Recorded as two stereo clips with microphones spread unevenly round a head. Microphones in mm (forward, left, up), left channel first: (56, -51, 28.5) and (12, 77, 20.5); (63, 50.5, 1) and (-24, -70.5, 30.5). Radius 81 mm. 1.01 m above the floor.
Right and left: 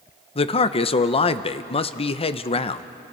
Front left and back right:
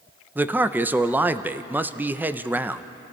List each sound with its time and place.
0.3 s a man speaking: 40° right, 0.8 m